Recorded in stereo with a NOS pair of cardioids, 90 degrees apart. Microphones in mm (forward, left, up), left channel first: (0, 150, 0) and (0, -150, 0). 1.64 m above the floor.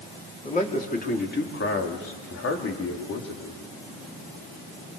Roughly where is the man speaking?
Ahead left.